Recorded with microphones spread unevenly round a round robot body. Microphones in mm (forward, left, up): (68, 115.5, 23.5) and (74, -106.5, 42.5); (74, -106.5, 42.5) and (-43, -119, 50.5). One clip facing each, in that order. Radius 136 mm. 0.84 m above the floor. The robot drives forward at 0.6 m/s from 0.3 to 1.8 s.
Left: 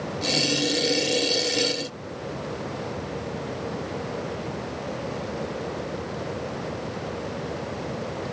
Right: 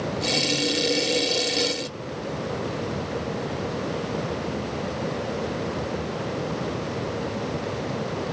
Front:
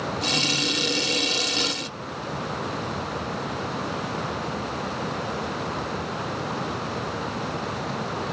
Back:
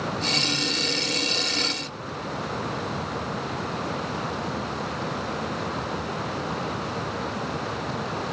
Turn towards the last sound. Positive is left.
No sound to turn to.